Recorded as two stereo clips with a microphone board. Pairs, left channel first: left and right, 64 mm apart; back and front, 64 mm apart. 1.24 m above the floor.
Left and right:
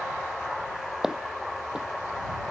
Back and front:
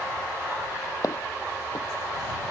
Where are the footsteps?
170° right.